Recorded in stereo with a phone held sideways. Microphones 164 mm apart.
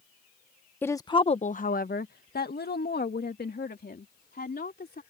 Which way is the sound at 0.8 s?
10° left (ahead or behind).